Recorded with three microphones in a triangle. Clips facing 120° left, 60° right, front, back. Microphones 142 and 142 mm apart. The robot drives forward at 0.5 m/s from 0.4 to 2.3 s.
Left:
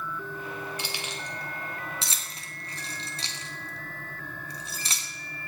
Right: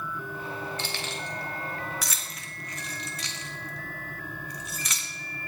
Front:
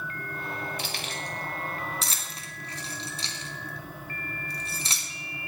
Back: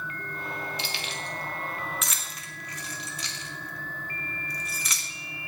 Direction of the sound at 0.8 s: 40° left.